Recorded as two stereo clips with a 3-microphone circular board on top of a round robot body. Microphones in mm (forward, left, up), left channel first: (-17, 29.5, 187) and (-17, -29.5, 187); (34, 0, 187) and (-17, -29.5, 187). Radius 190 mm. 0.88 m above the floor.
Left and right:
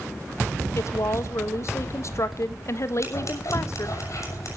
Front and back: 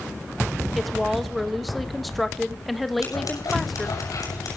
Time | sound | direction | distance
0.8 | a woman speaking | 120° left | 1.9 m
3.0 | scissors | 50° left | 7 m